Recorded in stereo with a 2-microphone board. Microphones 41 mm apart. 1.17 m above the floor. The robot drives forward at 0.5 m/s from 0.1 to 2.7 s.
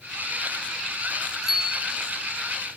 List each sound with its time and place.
1.4 s a bicycle bell: 10° right (ahead or behind), 2.5 m